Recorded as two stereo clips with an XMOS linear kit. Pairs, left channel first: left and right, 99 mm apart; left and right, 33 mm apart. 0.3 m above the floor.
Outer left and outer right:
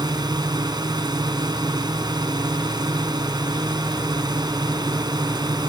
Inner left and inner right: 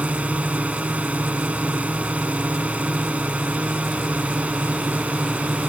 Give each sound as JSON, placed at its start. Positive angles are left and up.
{"t": 0.0, "sound": "a drone", "side_deg": -45}